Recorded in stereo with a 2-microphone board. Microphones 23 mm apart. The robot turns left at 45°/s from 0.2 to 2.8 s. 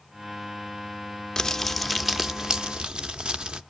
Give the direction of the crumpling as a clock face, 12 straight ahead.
11 o'clock.